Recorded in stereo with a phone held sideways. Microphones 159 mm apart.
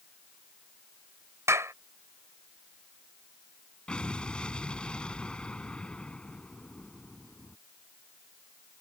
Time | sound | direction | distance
1.5 | a clap | 15° right (ahead or behind) | ?
3.9 | an explosion | 5° left (ahead or behind) | ?